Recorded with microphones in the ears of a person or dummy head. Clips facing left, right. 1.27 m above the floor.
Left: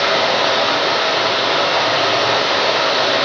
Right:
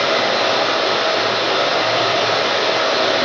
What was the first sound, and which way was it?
Running water, 5° right (ahead or behind).